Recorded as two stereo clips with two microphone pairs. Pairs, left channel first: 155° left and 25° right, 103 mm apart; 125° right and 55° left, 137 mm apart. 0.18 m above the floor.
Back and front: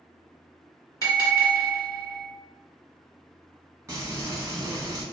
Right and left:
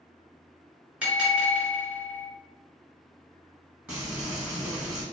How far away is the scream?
I don't hear a scream.